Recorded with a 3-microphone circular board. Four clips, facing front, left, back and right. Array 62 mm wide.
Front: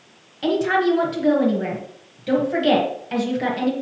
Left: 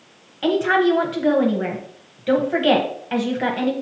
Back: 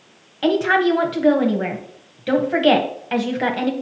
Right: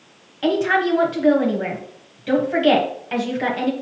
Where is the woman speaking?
175° left, 1.1 m.